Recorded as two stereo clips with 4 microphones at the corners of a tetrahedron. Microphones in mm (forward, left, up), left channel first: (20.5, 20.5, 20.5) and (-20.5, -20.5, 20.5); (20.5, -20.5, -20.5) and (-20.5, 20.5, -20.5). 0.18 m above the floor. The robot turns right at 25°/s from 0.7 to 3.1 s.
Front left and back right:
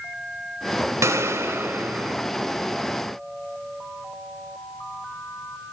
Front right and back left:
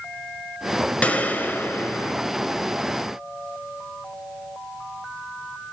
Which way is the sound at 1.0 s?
110° right.